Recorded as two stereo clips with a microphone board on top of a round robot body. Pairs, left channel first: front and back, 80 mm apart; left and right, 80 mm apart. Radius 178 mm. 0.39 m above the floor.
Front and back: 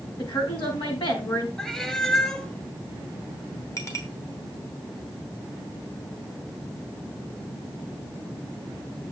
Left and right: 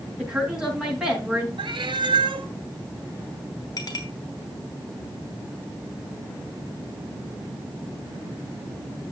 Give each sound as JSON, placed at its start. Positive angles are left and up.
{"t": 0.2, "sound": "a woman speaking", "azimuth_deg": -5, "distance_m": 5.5}
{"t": 1.6, "sound": "a cat meowing", "azimuth_deg": -85, "distance_m": 1.3}
{"t": 3.8, "sound": "a clink", "azimuth_deg": 50, "distance_m": 3.5}